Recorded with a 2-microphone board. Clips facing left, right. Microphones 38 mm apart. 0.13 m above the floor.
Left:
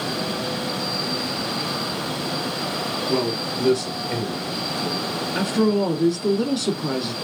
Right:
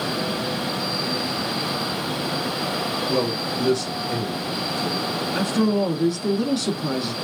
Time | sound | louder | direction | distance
3.1 | a man speaking | left 1 dB | centre (ahead or behind) | 1.5 m
5.3 | a woman speaking | left 1 dB | centre (ahead or behind) | 1.1 m